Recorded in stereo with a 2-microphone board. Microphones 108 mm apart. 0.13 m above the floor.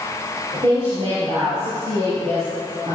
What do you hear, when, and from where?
0.5 s a woman speaking: 50° right (ahead or behind), 3 m; by 3.0 s 55° right (ahead or behind), 5 m